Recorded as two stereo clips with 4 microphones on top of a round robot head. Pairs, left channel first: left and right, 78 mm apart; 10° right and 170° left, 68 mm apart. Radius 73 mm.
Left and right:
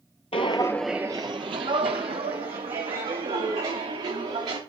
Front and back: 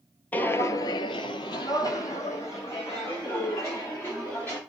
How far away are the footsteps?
About 0.7 m.